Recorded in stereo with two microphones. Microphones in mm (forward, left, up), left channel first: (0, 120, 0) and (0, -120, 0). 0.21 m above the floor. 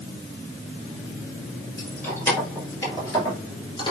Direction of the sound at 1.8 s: 5° left (ahead or behind).